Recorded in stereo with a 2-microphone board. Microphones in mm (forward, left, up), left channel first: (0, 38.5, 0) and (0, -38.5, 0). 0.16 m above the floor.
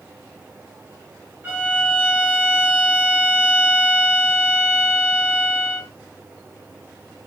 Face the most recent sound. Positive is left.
turn(degrees=-20)  # may be behind; listen again after turning